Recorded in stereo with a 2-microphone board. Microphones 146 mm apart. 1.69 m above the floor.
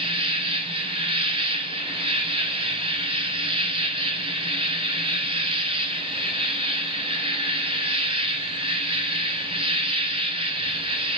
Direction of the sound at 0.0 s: 40° right (ahead or behind).